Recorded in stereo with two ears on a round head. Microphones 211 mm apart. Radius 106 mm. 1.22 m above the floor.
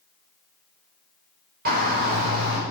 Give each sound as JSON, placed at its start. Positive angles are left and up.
{"t": 1.6, "sound": "a shout", "side_deg": -40, "distance_m": 5.5}